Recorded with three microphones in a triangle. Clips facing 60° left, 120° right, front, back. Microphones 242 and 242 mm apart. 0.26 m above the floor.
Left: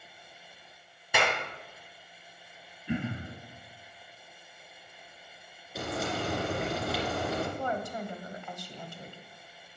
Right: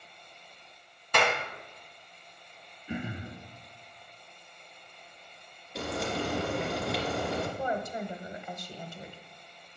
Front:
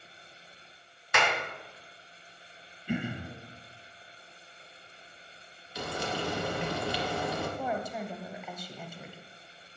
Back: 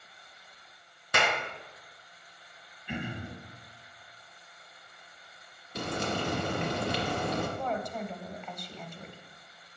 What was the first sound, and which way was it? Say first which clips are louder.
A clap: right 2 dB, even; 140° left.